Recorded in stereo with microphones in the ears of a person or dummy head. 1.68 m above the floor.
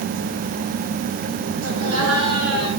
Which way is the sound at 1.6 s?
80° right.